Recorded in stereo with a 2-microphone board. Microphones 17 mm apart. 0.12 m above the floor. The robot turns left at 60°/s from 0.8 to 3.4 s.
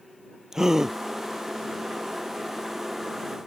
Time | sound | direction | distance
0.5 | a gasp | 35° right (ahead or behind) | ?